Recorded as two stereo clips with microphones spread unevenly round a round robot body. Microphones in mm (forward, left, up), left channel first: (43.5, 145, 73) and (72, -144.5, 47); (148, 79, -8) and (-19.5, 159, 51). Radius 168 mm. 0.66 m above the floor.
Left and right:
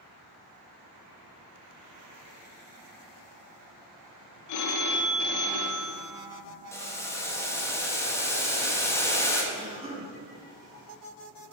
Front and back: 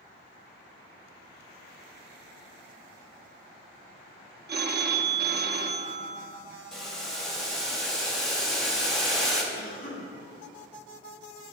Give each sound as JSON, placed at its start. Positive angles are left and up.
{"t": 4.5, "sound": "a phone ringing", "azimuth_deg": 110, "distance_m": 0.8}
{"t": 6.7, "sound": "boiling", "azimuth_deg": 15, "distance_m": 1.2}
{"t": 9.5, "sound": "a cough", "azimuth_deg": -15, "distance_m": 2.5}